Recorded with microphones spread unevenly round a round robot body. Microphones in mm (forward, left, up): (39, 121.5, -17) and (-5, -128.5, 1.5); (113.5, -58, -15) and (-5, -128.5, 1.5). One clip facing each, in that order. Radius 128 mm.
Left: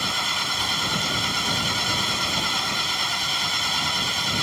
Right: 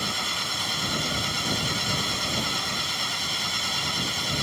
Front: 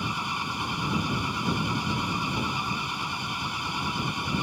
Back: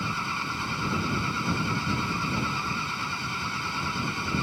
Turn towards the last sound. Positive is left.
turn(degrees=115)